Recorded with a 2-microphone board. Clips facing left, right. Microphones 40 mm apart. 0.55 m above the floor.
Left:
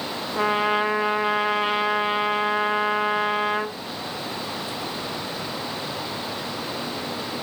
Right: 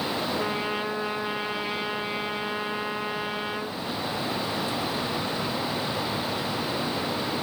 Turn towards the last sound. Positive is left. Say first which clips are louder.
# left 7 dB
turn(degrees=60)  # may be behind; listen again after turning